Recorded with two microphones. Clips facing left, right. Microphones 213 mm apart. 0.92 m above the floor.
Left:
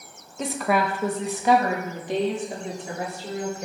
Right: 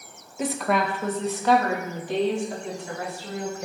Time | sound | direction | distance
0.4 | a woman speaking | 5° right (ahead or behind) | 0.6 m